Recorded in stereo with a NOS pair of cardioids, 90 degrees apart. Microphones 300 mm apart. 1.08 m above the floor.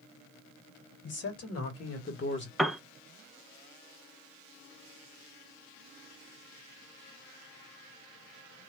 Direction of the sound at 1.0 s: 55° left.